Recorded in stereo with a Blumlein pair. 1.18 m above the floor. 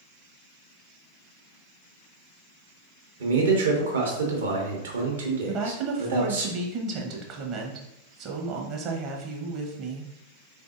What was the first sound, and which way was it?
A man speaking, 65° right.